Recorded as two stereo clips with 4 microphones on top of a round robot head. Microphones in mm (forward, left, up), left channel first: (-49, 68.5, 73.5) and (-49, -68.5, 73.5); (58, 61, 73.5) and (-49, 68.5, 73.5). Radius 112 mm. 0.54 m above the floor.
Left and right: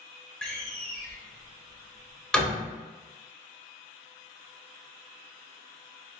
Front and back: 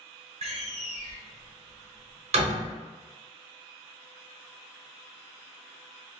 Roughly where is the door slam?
Behind.